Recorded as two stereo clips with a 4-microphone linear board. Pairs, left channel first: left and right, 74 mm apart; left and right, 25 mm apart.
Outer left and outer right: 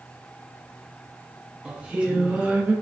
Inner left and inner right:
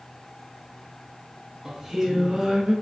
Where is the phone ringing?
I don't hear a phone ringing.